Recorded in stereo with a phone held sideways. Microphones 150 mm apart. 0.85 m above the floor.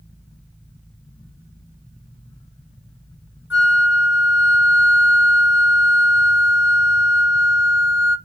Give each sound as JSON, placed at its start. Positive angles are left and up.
{"t": 3.5, "sound": "a flute", "side_deg": -15, "distance_m": 1.8}